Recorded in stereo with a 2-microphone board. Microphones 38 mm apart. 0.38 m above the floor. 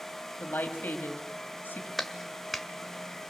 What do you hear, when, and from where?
0.4 s a woman speaking: 60° left (ahead or behind), 2.5 m
2.0 s a clap: centre (ahead or behind), 1.3 m